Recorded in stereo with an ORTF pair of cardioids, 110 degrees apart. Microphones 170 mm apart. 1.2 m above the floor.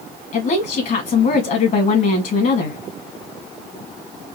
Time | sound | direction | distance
0.3 | a woman speaking | 55° left | 1.9 m